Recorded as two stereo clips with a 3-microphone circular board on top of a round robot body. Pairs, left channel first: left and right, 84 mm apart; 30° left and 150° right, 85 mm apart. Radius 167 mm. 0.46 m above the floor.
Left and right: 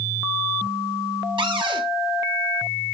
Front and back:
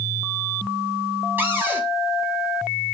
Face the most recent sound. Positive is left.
turn(degrees=-85)